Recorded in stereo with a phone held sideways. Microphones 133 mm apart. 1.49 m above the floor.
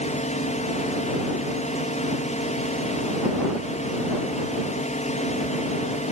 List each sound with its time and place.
0.0 s a drone: 60° left (ahead or behind)